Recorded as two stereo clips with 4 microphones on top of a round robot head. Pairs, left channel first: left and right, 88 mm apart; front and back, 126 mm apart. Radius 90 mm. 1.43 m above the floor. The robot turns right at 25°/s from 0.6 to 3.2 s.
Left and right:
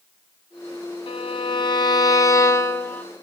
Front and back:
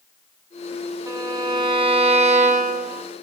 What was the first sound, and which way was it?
A violin, 115° left.